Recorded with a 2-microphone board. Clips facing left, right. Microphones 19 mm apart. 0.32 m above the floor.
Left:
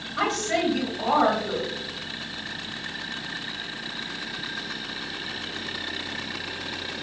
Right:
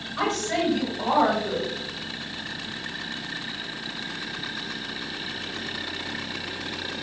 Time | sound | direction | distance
0.2 | a woman speaking | 5° left (ahead or behind) | 1.6 m